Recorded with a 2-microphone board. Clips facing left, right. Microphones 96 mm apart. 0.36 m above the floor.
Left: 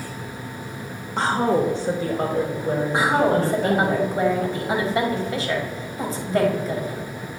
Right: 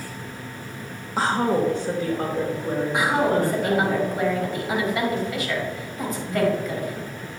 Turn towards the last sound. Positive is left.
turn(degrees=30)  # may be behind; listen again after turning